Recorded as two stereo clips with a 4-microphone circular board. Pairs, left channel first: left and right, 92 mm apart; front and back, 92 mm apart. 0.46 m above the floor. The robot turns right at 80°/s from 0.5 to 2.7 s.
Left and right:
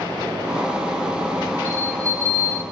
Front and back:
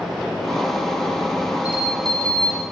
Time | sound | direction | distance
1.6 | a bell | 115° right | 0.7 m